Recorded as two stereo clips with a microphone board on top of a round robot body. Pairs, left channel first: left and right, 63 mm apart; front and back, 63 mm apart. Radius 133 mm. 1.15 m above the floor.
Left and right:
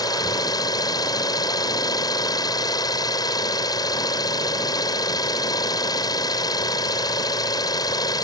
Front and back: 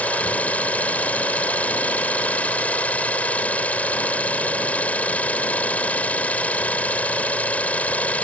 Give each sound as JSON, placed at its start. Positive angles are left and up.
{"t": 0.0, "sound": "an engine running", "azimuth_deg": 70}